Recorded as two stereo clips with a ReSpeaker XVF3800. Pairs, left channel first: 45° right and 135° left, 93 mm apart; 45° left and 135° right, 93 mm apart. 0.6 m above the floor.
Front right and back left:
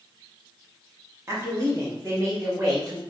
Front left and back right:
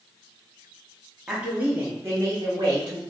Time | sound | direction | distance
1.3 | a woman speaking | 150° left | 0.9 m